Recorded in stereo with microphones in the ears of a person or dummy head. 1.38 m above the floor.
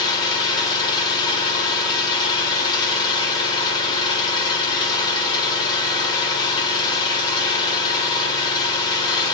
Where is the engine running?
25° left (ahead or behind), 1.8 m.